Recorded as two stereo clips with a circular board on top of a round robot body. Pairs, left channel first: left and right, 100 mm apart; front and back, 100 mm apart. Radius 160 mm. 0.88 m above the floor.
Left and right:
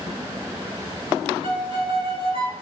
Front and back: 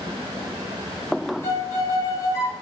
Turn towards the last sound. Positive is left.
turn(degrees=60)